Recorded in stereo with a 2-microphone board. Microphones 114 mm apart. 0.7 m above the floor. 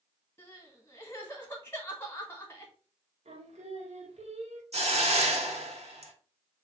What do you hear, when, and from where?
0.4 s crying: 20° left (ahead or behind), 1.0 m
3.2 s singing: 75° right (ahead or behind), 1.0 m
4.7 s a hiss: 65° right (ahead or behind), 1.0 m